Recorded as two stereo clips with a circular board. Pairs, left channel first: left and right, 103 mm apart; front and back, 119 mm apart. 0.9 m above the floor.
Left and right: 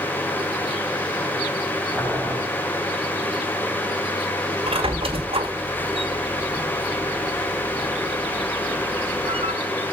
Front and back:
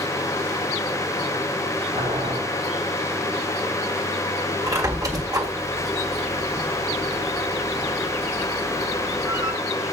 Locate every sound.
1.9 s boiling: straight behind, 6 m
4.7 s a squeak: 120° right, 2.0 m